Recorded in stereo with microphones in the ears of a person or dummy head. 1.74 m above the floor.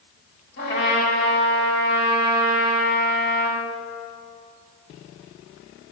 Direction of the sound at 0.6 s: 60° left (ahead or behind).